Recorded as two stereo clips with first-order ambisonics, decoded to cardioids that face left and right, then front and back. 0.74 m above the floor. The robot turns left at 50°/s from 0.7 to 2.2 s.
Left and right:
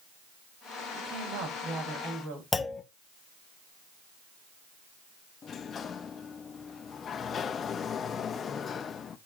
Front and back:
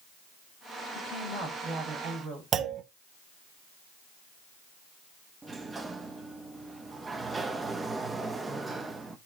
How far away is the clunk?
About 0.5 m.